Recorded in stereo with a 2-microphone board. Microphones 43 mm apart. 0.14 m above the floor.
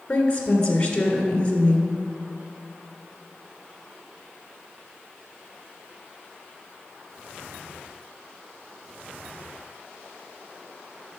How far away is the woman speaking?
About 1.7 m.